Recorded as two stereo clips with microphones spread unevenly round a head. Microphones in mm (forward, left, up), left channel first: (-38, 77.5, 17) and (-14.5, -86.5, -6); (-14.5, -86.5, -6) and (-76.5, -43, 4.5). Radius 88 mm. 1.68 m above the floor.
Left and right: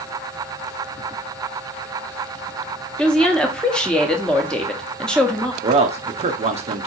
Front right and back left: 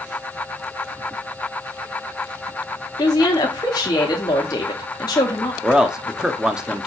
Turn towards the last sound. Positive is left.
turn(degrees=-135)